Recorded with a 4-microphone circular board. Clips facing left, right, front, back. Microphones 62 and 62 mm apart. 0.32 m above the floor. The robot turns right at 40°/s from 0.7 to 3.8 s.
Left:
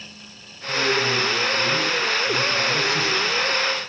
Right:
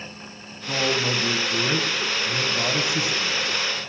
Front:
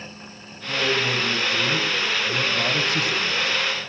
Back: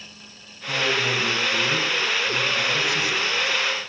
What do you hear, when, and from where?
0.7 s a man speaking: 110° right, 1.9 m; by 3.4 s 5° right, 1.9 m